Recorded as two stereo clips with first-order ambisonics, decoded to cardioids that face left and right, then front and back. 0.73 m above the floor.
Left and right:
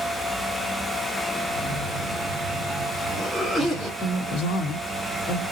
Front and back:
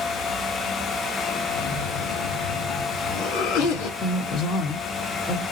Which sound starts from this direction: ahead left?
A woman speaking, at 4.0 s.